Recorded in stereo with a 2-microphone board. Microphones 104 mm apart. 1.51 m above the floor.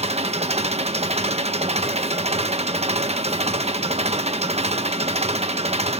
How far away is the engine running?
About 1.2 m.